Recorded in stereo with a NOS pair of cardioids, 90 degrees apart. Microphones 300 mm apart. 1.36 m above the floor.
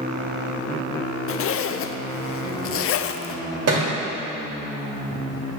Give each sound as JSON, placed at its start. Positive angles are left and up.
{"t": 1.3, "sound": "a zipper", "azimuth_deg": 50, "distance_m": 0.6}
{"t": 3.7, "sound": "a thud", "azimuth_deg": -55, "distance_m": 3.0}